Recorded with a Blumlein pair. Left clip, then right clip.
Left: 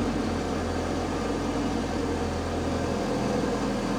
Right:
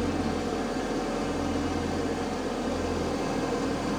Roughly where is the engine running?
Ahead.